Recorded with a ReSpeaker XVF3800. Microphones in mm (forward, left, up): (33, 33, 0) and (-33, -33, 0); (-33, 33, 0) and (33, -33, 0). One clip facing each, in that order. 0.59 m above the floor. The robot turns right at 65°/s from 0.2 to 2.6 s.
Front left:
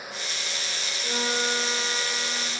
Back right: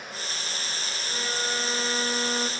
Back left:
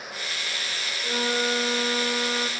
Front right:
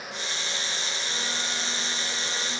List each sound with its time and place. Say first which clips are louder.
1.0 s a flute: front left 5 dB, back left 13 dB; 85° left, 0.9 m; by 2.5 s straight behind, 0.9 m